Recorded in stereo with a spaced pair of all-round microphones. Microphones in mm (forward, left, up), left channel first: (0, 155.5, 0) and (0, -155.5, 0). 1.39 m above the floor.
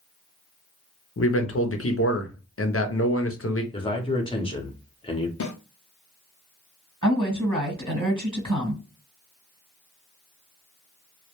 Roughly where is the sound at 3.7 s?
Centre.